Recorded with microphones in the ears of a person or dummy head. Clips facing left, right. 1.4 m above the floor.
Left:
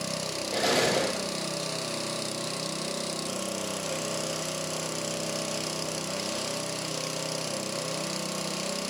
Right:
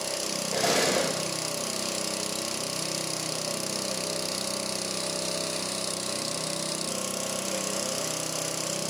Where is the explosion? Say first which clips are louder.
Even; centre (ahead or behind), 8 m.